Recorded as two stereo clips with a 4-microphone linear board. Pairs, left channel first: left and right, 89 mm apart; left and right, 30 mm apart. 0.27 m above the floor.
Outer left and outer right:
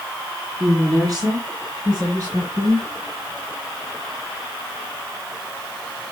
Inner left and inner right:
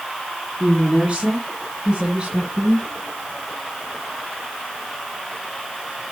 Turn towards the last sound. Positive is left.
turn(degrees=-40)  # may be behind; listen again after turning